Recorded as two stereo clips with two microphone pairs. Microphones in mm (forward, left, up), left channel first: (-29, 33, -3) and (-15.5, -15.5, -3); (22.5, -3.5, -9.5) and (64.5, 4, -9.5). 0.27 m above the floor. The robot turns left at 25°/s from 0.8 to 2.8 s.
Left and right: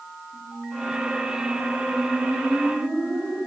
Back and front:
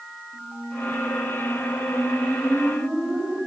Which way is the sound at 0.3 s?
70° left.